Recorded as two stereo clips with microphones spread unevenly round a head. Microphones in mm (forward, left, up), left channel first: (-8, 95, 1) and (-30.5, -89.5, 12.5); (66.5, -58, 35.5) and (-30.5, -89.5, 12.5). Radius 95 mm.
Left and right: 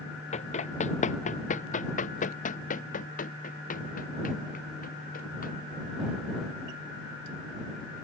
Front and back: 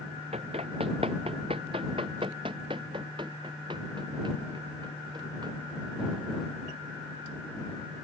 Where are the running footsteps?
140° left; by 5.5 s 130° left.